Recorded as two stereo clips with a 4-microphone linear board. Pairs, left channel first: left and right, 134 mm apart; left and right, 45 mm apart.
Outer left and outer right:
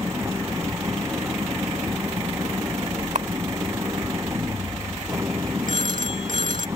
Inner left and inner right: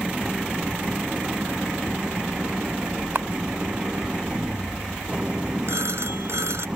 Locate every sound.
0.0 s an engine running: 20° right (ahead or behind)
3.1 s a camera shutter: 60° right (ahead or behind)
5.7 s a phone ringing: 75° right (ahead or behind)